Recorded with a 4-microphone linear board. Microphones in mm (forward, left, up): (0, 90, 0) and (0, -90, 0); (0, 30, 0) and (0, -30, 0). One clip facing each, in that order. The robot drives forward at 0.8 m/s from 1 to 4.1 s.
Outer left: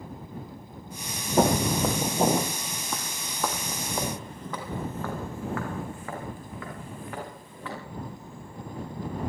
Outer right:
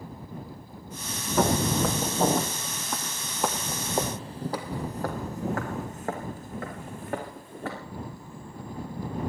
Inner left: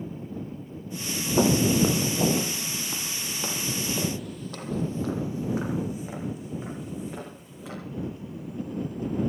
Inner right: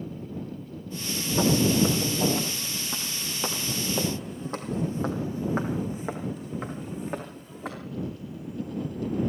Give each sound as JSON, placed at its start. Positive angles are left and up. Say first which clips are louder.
{"t": 1.4, "sound": "footsteps", "louder": "outer left 1 dB, inner left 1 dB", "side_deg": 30, "distance_m": 2.5}